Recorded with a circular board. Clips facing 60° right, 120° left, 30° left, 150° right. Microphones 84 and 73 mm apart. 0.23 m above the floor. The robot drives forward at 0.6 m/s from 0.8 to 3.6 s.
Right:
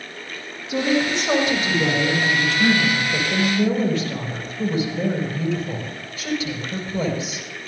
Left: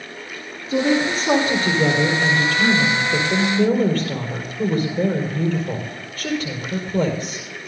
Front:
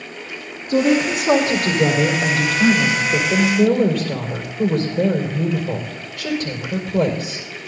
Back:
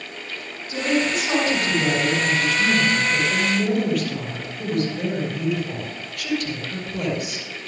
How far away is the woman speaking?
About 5.5 m.